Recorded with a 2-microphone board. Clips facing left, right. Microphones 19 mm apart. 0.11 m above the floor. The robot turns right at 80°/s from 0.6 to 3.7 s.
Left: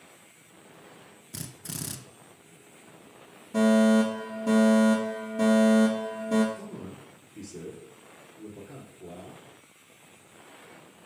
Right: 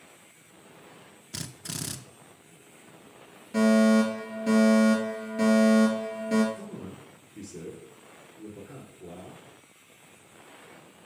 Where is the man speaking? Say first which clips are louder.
Even; 20° right (ahead or behind), 1.8 m.